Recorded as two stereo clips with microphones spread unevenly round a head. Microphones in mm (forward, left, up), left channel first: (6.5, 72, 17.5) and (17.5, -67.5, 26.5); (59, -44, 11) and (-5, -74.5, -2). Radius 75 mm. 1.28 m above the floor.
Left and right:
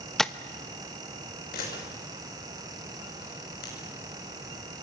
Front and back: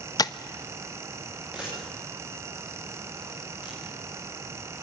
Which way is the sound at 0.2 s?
5° left.